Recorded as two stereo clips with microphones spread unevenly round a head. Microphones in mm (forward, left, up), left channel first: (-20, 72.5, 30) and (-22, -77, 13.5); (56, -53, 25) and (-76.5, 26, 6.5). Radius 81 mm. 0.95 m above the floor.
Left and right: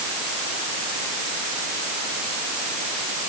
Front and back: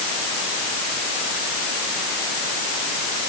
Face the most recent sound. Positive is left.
No sound to turn to.